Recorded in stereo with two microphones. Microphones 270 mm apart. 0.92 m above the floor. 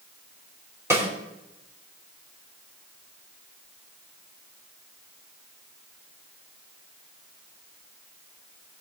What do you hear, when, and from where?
0.9 s a snare drum: 10° right (ahead or behind), 3 m